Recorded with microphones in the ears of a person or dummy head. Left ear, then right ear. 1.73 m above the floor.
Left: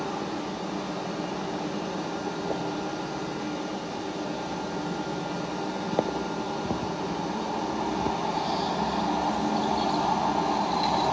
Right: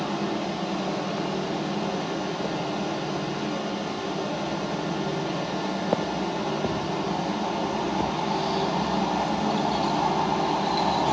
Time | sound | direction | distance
0.0 | a fan | 30° right (ahead or behind) | 0.7 m